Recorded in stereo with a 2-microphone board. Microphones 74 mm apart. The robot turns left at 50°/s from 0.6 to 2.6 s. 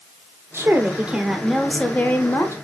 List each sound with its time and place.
0.5 s a woman speaking: 135° right, 1.1 m; by 2.5 s 130° left, 1.1 m